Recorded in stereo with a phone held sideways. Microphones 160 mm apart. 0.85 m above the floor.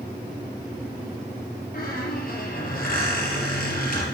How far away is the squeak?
About 3.5 m.